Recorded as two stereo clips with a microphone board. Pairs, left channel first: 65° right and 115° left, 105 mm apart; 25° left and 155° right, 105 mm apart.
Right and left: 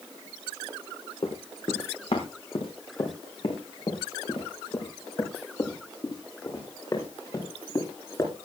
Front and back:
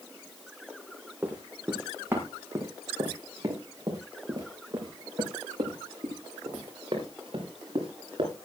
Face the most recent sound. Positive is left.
turn(degrees=-125)